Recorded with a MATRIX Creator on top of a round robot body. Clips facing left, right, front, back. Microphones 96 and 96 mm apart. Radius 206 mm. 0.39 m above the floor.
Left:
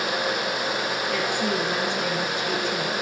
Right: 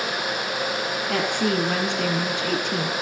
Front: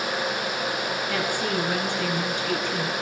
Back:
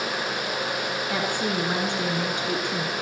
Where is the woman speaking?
110° right, 6 m.